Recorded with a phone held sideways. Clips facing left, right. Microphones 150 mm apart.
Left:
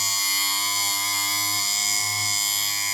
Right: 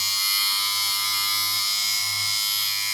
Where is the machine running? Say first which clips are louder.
Left 3 dB; 45° left (ahead or behind).